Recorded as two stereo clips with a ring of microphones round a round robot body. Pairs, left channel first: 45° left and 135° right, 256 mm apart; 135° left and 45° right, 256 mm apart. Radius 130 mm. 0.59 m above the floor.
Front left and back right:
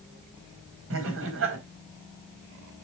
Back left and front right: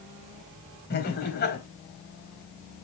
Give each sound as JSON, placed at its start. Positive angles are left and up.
{"t": 0.9, "sound": "laughter", "azimuth_deg": -175, "distance_m": 4.5}